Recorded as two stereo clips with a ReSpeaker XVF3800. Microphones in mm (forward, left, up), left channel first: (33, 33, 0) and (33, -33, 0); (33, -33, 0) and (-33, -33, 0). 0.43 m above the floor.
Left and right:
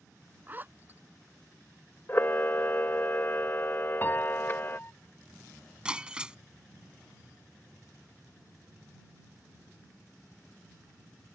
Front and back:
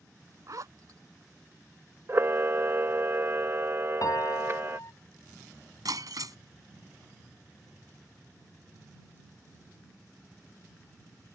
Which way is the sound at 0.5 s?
150° right.